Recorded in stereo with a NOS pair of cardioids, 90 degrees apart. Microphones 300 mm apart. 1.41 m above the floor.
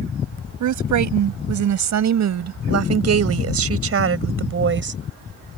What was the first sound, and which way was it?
A woman speaking, 70° right.